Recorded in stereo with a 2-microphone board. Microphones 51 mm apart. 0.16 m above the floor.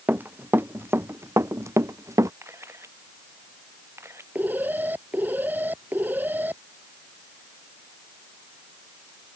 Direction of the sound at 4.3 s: 40° right (ahead or behind).